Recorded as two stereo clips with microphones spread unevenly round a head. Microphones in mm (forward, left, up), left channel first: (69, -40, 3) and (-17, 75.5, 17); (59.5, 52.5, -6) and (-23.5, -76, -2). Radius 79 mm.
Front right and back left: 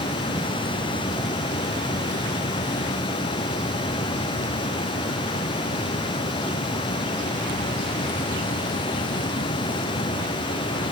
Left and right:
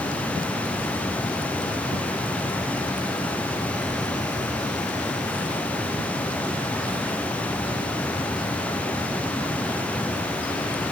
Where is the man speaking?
No man speaking in this recording.